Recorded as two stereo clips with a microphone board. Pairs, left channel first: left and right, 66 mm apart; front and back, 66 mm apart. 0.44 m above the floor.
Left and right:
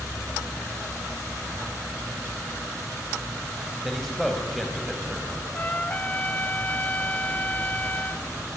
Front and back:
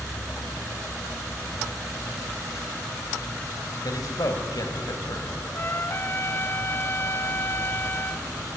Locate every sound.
3.8 s a man speaking: straight ahead, 2.5 m
5.5 s a trumpet: 35° left, 0.7 m